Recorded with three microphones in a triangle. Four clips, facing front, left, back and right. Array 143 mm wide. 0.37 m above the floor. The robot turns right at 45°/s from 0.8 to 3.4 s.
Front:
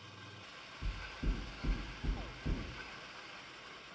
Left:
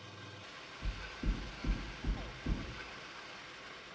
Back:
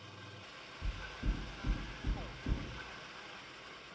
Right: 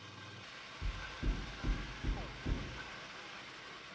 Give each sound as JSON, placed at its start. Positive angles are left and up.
{"t": 0.8, "sound": "knocking", "azimuth_deg": -105, "distance_m": 1.1}